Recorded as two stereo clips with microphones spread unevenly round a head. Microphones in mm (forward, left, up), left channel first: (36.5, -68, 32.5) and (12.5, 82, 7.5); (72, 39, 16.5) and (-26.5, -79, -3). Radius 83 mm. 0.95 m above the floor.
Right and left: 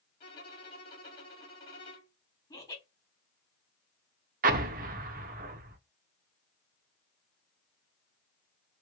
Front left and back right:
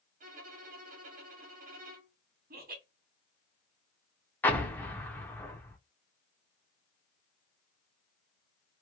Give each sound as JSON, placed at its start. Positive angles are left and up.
{"t": 0.2, "sound": "a violin", "azimuth_deg": -140, "distance_m": 1.5}
{"t": 2.5, "sound": "laughter", "azimuth_deg": -150, "distance_m": 1.7}
{"t": 4.4, "sound": "an explosion", "azimuth_deg": 115, "distance_m": 0.6}